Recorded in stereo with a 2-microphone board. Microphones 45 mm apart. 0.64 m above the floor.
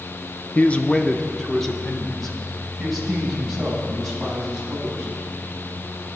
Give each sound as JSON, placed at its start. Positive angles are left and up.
{"t": 0.6, "sound": "a man speaking", "side_deg": 35, "distance_m": 0.6}